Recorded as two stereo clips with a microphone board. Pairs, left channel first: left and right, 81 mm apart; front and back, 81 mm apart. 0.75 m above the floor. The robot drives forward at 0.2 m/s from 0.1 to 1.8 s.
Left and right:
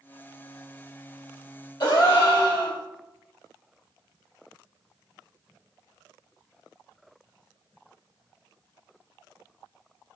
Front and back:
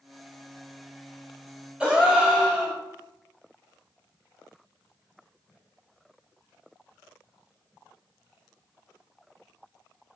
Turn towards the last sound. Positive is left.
turn(degrees=105)